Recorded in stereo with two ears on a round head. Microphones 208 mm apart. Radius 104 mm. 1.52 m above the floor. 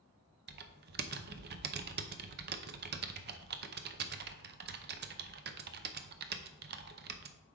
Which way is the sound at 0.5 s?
45° right (ahead or behind).